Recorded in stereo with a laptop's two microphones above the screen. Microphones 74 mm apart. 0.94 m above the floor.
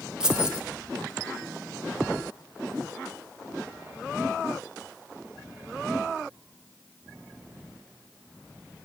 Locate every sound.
0.2 s keys jangling: 10° right (ahead or behind), 1.0 m